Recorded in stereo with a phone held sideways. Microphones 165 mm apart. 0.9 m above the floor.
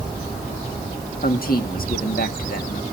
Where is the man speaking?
65° left (ahead or behind), 1.7 m.